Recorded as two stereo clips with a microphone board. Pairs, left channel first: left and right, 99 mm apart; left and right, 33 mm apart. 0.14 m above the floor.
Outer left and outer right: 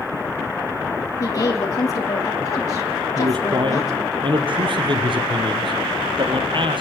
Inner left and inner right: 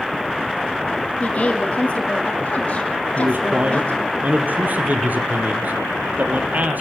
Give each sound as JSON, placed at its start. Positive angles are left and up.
{"t": 1.2, "sound": "a woman speaking", "side_deg": 35, "distance_m": 4.0}
{"t": 3.1, "sound": "a man speaking", "side_deg": -55, "distance_m": 3.0}